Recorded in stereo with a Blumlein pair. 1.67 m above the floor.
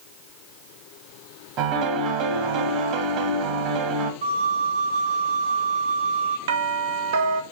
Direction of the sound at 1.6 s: 35° right.